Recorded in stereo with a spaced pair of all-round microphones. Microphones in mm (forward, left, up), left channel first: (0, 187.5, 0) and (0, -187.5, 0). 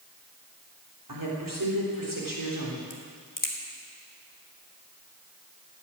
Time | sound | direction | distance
1.1 | a woman speaking | 60° right (ahead or behind) | 3.5 m
2.9 | a crack | 60° left (ahead or behind) | 1.7 m